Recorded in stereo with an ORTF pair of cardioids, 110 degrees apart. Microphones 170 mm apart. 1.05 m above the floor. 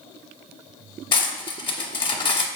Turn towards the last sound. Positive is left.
turn(degrees=30)